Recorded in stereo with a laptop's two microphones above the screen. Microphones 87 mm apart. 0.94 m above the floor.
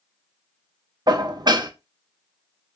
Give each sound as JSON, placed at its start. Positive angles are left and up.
{"t": 1.1, "sound": "dishes clattering", "side_deg": -55, "distance_m": 0.6}